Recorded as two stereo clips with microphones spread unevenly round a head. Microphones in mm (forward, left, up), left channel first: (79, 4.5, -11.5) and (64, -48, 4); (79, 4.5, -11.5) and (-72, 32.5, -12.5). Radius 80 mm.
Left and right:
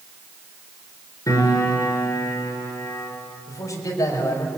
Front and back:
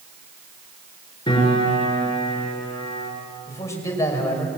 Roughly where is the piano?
Ahead left.